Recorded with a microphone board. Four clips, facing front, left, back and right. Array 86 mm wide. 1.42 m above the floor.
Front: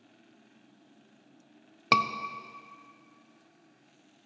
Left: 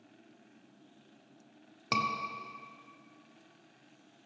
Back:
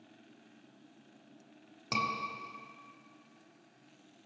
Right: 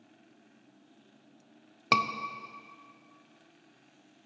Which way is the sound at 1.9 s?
30° right.